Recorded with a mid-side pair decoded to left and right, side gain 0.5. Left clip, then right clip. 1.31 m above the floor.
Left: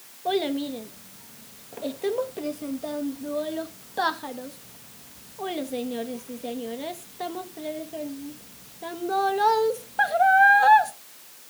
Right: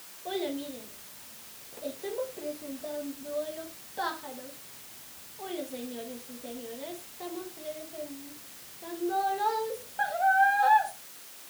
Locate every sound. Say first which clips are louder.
0.2 s a child speaking: left 8 dB; 55° left, 1.2 m